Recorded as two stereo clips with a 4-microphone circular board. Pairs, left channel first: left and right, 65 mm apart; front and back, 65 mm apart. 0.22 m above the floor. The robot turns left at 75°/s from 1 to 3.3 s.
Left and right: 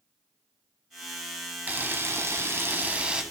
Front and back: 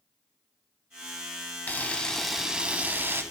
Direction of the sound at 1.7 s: 45° right.